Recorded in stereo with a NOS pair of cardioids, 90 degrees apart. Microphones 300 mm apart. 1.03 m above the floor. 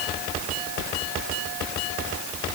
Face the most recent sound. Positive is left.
No sound to turn to.